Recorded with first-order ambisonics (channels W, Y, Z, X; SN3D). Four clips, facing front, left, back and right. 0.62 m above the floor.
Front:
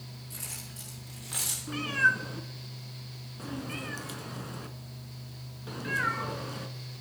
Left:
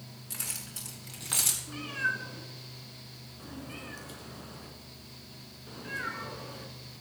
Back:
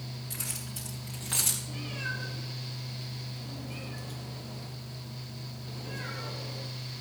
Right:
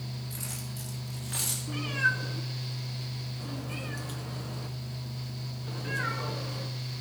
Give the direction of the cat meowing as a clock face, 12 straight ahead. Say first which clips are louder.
Right 4 dB, front 11 dB; 12 o'clock.